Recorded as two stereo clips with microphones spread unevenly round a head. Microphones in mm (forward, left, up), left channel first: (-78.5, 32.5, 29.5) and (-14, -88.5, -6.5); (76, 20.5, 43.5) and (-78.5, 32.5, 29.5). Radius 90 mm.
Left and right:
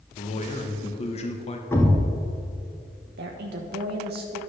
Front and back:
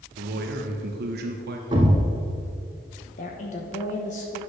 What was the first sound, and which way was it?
A man speaking, 155° left.